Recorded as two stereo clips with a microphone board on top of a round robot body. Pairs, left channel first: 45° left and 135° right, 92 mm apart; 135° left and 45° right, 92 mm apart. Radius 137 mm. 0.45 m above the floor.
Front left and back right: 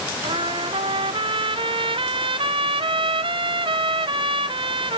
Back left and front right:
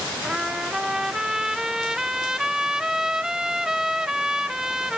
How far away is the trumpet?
About 0.6 m.